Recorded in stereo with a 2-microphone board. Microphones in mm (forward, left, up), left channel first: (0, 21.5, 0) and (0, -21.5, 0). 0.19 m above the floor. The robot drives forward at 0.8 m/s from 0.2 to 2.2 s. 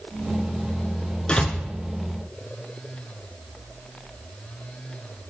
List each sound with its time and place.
1.3 s a door slam: 20° left (ahead or behind), 1.5 m